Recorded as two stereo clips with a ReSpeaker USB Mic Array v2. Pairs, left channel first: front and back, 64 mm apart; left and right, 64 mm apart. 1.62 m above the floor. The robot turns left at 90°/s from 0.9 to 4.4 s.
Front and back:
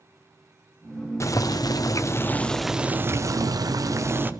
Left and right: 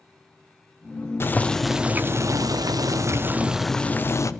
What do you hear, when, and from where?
1.2 s boiling: 40° left, 0.7 m; by 4.3 s 120° left, 0.7 m